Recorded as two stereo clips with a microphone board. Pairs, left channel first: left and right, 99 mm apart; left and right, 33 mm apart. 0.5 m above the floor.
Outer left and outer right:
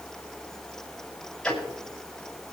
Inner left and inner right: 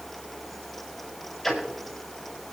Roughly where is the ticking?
Centre.